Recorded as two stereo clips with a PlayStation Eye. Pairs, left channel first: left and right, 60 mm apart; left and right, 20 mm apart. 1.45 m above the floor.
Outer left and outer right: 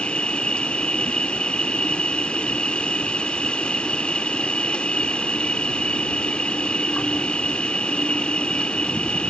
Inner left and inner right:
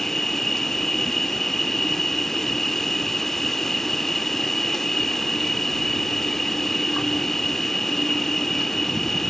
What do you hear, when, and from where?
0.0 s an insect: 20° left (ahead or behind)